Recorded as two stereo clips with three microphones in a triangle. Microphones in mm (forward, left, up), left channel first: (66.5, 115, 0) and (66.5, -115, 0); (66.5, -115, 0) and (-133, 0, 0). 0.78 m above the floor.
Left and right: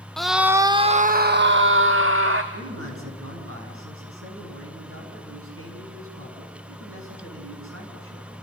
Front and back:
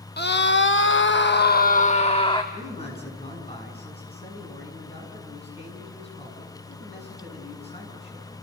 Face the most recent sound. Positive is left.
turn(degrees=-95)